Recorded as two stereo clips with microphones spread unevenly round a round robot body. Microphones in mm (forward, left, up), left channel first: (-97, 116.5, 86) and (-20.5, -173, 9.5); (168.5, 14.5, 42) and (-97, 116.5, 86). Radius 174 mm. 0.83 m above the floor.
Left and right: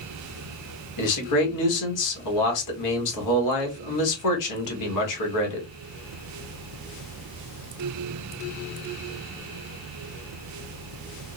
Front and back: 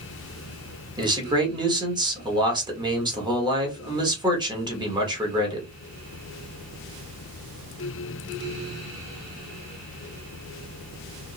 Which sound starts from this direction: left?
A man speaking, at 1.0 s.